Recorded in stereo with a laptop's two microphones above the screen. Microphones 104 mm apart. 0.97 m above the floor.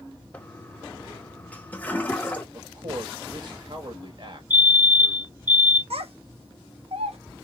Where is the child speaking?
80° right, 1.0 m.